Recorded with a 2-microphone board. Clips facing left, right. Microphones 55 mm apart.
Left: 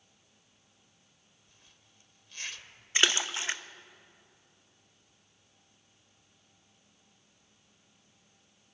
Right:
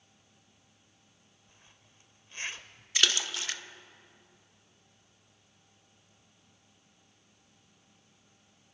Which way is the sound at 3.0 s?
25° left (ahead or behind).